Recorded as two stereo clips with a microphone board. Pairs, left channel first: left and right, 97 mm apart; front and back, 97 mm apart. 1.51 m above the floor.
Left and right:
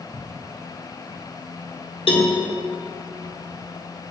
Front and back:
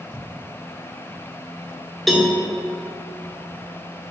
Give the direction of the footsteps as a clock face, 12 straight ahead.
1 o'clock.